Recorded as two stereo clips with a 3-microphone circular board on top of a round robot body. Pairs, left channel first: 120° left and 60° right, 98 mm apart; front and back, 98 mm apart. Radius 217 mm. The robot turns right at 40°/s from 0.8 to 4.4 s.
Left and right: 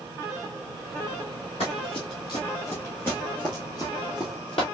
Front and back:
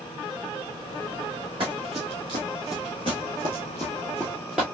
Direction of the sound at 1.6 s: 145° left.